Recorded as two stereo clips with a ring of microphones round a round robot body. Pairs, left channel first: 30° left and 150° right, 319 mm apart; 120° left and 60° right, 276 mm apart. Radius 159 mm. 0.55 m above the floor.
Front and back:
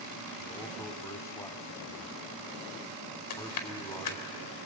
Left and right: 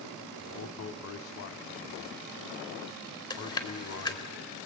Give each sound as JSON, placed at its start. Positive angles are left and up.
{"t": 0.4, "sound": "a man speaking", "azimuth_deg": 105, "distance_m": 1.3}
{"t": 3.3, "sound": "chewing", "azimuth_deg": 45, "distance_m": 2.5}